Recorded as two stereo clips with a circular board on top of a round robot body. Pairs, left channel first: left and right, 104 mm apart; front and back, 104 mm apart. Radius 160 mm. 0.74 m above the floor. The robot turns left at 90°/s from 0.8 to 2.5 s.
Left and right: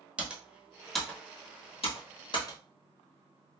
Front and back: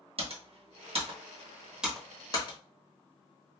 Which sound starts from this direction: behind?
Typing on a keyboard, at 0.2 s.